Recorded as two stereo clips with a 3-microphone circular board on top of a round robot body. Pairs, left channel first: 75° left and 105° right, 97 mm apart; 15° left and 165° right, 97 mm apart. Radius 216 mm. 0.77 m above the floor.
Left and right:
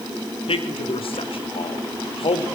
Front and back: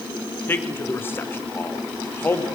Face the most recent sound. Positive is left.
turn(degrees=80)